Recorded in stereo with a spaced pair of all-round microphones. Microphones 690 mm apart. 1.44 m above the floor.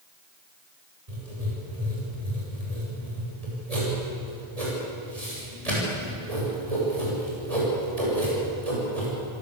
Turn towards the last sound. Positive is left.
turn(degrees=-60)  # may be behind; listen again after turning